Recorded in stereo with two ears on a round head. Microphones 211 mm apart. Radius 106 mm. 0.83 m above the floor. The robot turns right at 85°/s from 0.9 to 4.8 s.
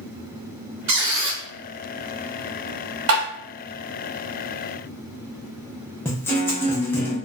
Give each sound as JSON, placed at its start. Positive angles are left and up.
{"t": 0.9, "sound": "a squeak", "azimuth_deg": -100, "distance_m": 1.3}
{"t": 3.1, "sound": "tapping", "side_deg": -65, "distance_m": 1.6}
{"t": 6.0, "sound": "a guitar", "side_deg": 10, "distance_m": 0.7}